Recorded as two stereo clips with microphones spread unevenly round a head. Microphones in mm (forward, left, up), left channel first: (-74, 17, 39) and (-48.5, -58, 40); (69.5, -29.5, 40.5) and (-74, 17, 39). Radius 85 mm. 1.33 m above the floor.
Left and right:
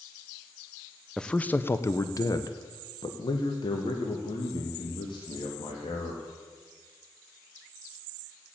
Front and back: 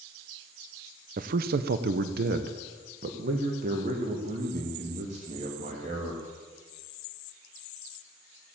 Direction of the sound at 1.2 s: 170° right.